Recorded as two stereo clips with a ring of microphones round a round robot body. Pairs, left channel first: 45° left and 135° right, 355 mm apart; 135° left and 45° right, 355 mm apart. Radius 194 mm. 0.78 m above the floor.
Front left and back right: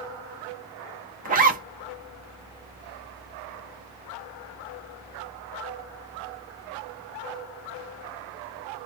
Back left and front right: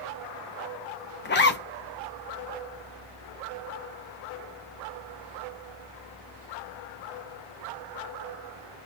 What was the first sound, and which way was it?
A zipper, 175° left.